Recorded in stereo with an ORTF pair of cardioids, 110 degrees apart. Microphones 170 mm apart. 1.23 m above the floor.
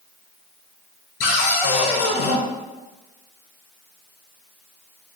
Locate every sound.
1.2 s a cupboard door: 65° left, 1.0 m